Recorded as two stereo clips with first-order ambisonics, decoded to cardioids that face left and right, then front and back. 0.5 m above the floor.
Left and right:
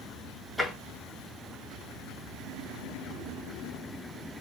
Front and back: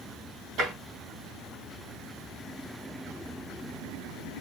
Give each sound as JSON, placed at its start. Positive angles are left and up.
{"t": 0.6, "sound": "tapping", "azimuth_deg": 175, "distance_m": 2.0}